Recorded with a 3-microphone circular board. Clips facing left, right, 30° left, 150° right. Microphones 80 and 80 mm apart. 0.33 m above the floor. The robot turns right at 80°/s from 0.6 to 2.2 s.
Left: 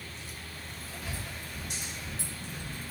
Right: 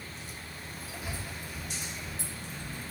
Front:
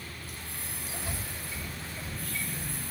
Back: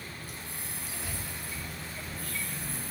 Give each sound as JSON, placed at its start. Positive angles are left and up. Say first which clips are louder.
{"t": 1.0, "sound": "breathing", "louder": "even, even", "azimuth_deg": -65, "distance_m": 0.6}